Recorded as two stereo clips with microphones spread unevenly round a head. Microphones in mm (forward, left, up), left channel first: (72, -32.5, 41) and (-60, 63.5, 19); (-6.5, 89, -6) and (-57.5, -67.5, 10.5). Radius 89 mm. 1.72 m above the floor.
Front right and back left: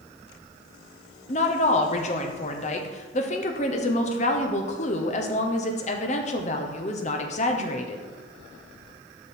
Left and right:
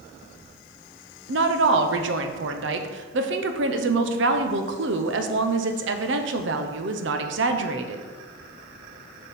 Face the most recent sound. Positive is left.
turn(degrees=-90)